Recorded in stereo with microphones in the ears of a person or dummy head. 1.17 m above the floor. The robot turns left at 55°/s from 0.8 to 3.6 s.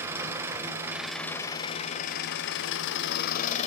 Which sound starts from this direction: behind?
An engine running, at 0.0 s.